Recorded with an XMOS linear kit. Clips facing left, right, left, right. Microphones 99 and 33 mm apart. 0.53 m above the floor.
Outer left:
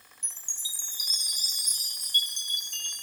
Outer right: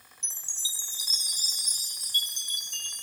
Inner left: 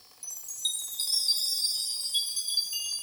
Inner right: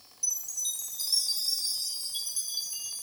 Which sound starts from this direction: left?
A chime, at 0.2 s.